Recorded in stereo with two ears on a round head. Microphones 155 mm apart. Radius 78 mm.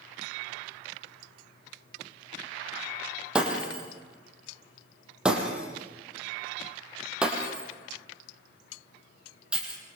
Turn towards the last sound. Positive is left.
turn(degrees=-5)  # may be behind; listen again after turning